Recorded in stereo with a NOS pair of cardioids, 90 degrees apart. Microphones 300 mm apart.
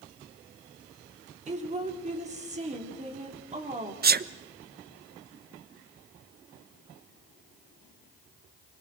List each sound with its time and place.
1.5 s a woman speaking: 25° right, 4 m
4.0 s a sneeze: 30° right, 0.9 m